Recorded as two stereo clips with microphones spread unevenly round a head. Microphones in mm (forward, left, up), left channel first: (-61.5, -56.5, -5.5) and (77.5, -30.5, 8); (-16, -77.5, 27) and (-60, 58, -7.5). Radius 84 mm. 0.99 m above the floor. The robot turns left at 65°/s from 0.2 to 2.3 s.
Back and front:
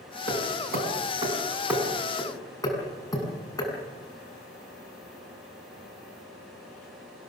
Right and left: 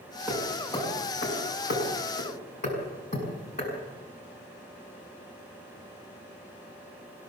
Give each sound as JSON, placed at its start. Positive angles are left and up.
{"t": 0.3, "sound": "hammering", "azimuth_deg": 30, "distance_m": 6.0}